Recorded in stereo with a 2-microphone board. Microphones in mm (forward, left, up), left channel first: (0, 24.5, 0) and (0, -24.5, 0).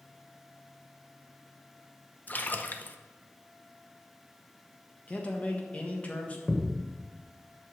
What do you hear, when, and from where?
2.3 s a splash: 40° left (ahead or behind), 0.6 m
5.1 s a man speaking: 30° left (ahead or behind), 1.6 m
6.5 s a thud: 10° right (ahead or behind), 1.2 m